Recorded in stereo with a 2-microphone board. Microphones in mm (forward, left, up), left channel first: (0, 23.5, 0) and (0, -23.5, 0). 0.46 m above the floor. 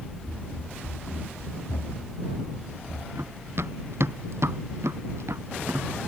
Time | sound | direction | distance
0.2 | running footsteps | 25° left (ahead or behind) | ?
3.1 | running footsteps | 65° right (ahead or behind) | ?